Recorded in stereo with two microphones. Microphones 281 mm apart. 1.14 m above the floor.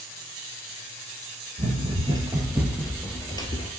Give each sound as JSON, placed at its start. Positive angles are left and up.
{"t": 1.6, "sound": "running footsteps", "side_deg": -25, "distance_m": 1.4}